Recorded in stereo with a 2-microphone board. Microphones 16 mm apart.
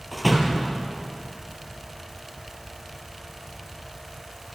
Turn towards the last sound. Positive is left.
turn(degrees=-5)  # may be behind; listen again after turning